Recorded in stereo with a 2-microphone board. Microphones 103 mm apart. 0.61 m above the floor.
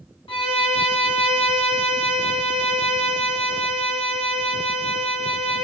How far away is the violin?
About 0.9 m.